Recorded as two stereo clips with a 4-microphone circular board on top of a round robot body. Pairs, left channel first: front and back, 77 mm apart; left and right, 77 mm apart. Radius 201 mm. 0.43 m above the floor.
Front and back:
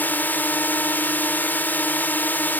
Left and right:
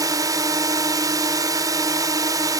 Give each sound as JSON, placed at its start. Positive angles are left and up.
{"t": 0.0, "sound": "a drone", "azimuth_deg": -65}